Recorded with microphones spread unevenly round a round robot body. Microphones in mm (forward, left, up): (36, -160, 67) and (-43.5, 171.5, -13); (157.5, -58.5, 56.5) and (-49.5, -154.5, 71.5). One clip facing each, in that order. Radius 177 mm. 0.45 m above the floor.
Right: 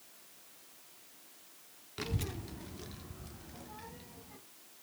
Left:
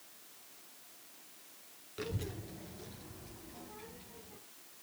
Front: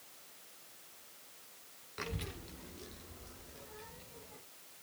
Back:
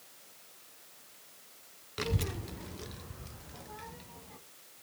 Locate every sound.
2.0 s a child speaking: 155° right, 0.6 m; by 4.4 s 135° right, 3 m